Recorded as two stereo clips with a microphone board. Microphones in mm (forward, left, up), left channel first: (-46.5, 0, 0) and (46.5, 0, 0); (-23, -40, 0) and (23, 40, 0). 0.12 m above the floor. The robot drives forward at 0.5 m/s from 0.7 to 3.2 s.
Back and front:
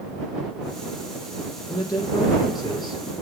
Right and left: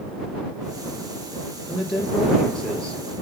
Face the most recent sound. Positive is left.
turn(degrees=165)